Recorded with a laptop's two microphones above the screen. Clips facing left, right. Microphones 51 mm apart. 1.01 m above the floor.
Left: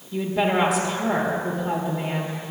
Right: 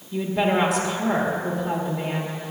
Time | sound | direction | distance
0.1 | a woman speaking | 5° right (ahead or behind) | 1.7 m